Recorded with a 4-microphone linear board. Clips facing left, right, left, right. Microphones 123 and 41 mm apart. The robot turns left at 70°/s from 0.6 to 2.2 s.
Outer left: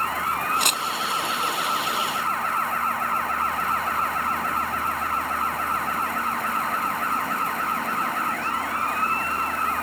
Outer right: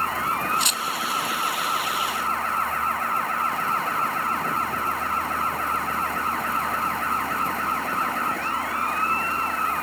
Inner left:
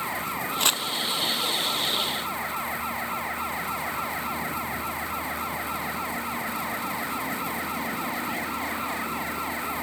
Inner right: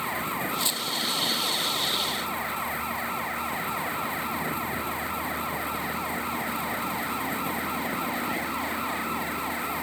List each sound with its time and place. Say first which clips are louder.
0.6 s crumpling: outer left 2 dB, inner left 5 dB; 65° left (ahead or behind); by 0.8 s 70° left (ahead or behind)